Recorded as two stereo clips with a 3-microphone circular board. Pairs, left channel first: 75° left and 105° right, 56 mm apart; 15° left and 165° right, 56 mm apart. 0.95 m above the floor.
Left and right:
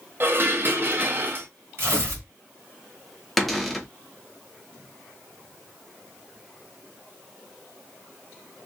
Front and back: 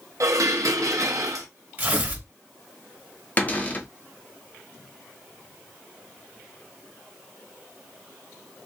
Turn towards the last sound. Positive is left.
turn(degrees=-15)